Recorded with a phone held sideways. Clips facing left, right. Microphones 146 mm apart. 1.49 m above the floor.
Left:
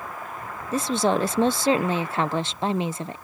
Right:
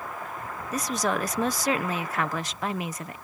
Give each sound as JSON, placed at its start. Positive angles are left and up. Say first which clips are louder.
{"t": 0.7, "sound": "a woman speaking", "louder": "left 5 dB", "side_deg": 30}